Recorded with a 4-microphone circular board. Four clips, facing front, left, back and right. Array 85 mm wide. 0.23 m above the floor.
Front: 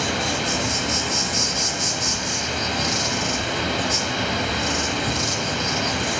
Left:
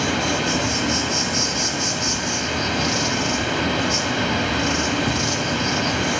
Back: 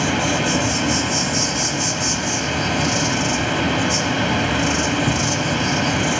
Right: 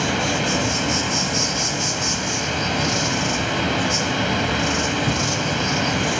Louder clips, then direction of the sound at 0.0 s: Even, back 5 dB; 165° right.